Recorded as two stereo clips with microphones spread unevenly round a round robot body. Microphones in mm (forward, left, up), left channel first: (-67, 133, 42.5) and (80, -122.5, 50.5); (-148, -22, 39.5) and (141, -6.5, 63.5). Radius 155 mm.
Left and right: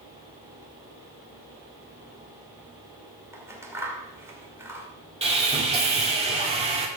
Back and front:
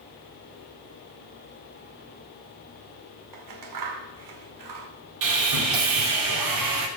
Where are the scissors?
20° left, 2.0 m.